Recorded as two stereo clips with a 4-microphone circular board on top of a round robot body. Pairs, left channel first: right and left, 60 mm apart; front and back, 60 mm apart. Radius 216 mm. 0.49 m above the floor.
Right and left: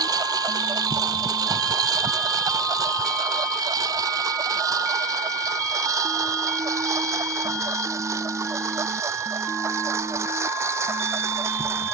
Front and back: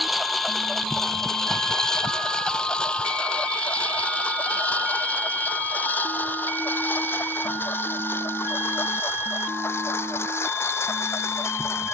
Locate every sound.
0.0 s a lawn mower: 90° left; by 11.9 s 45° left